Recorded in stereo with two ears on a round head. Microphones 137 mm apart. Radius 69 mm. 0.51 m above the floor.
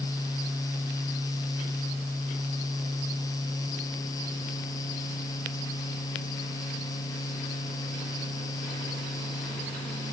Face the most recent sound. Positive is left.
No sound to turn to.